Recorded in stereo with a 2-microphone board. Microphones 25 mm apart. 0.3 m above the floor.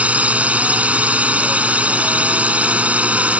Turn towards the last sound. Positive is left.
turn(degrees=-65)  # may be behind; listen again after turning